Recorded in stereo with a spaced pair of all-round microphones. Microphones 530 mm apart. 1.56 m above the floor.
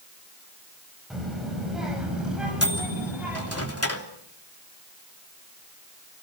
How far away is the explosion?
No explosion in this recording.